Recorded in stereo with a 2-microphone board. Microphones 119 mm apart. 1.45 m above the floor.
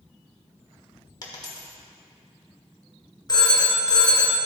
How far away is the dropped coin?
About 1.3 m.